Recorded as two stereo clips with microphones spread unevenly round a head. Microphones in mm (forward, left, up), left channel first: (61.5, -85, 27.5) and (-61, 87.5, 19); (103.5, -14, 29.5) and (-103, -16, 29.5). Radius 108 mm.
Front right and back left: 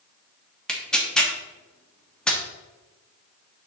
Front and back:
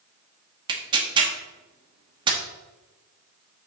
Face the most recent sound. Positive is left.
turn(degrees=-135)